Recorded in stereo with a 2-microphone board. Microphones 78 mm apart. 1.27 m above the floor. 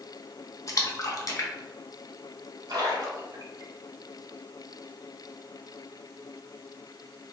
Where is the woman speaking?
I don't hear a woman speaking.